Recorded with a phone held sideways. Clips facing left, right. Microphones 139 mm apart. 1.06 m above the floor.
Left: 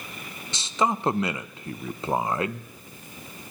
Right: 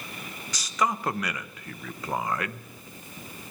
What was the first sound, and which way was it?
A man speaking, 25° left (ahead or behind).